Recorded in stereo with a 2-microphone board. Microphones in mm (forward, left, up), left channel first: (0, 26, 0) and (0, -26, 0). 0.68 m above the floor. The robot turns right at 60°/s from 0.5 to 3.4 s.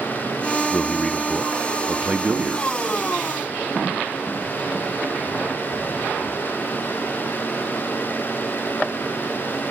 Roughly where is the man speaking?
Behind left.